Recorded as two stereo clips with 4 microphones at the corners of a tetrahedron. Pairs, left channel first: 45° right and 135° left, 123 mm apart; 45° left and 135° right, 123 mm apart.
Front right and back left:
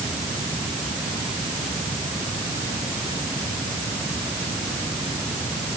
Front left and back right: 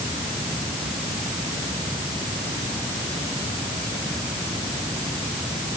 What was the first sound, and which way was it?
Only background noise.